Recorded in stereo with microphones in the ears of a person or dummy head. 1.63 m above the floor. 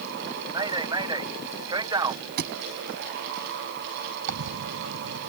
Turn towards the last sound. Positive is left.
turn(degrees=-80)